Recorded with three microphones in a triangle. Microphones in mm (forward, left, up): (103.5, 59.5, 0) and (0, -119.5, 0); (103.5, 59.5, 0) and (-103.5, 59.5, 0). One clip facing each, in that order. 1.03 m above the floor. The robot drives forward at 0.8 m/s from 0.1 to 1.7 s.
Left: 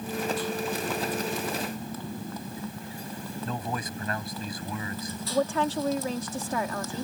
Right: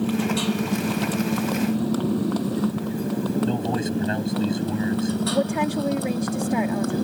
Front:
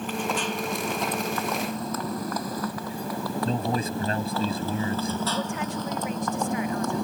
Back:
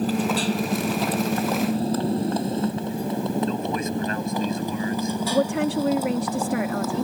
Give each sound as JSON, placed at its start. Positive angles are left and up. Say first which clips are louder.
{"t": 0.0, "sound": "a motorcycle", "louder": "right 8 dB, back 6 dB", "azimuth_deg": -125}
{"t": 3.5, "sound": "a man speaking", "louder": "right 10 dB, back 1 dB", "azimuth_deg": -55}
{"t": 5.3, "sound": "a woman speaking", "louder": "right 4 dB, back 8 dB", "azimuth_deg": 165}